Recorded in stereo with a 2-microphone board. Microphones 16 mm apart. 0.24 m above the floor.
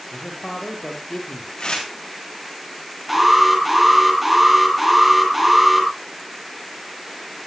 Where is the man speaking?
70° left (ahead or behind), 5 m.